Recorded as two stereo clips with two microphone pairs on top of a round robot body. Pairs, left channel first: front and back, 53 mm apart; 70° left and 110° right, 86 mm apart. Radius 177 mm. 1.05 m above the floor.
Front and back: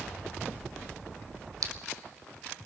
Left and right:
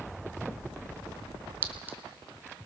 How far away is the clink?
About 1.1 m.